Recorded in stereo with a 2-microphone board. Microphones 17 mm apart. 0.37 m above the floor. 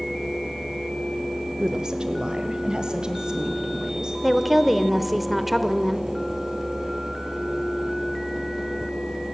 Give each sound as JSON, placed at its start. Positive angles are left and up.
{"t": 1.6, "sound": "a woman speaking", "side_deg": -40, "distance_m": 1.0}
{"t": 4.2, "sound": "a woman speaking", "side_deg": -10, "distance_m": 1.3}